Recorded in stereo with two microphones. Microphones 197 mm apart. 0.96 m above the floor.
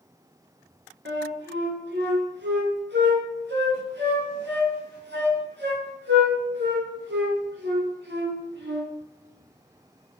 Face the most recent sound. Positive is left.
turn(degrees=-75)  # may be behind; listen again after turning